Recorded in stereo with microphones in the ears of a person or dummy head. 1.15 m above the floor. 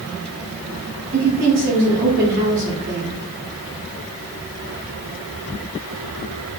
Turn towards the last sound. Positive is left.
turn(degrees=-55)  # may be behind; listen again after turning